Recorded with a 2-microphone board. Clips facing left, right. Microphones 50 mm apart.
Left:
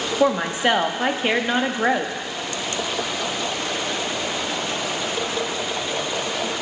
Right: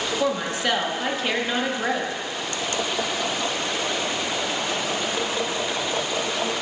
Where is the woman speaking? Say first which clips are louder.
Left 7 dB; 25° left (ahead or behind), 0.6 m.